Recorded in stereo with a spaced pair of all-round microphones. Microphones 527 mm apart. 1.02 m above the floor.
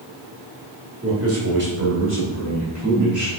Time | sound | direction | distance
1.0 | a man speaking | 25° right (ahead or behind) | 2.5 m